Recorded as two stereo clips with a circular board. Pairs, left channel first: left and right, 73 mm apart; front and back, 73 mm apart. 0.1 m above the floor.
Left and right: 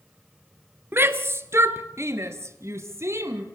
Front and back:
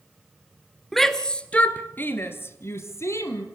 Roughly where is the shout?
Right.